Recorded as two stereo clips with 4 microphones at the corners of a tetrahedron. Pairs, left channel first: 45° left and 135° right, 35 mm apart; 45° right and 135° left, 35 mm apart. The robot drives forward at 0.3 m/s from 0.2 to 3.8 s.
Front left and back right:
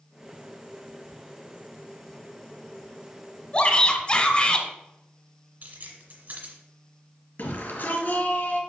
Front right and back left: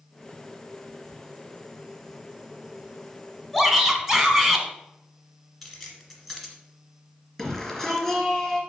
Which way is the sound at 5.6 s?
135° right.